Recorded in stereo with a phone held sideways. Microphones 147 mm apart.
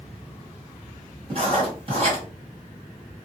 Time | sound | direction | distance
1.3 | writing | 40° right (ahead or behind) | 1.8 m